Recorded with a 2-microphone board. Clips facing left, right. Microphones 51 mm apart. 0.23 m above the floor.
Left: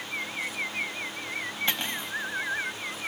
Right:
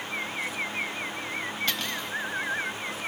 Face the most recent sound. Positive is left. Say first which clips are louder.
# even
turn(degrees=25)  # may be behind; listen again after turning